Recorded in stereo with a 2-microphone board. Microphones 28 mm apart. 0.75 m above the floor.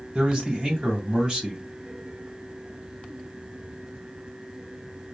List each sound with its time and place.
0.1 s a man speaking: 30° right (ahead or behind), 1.9 m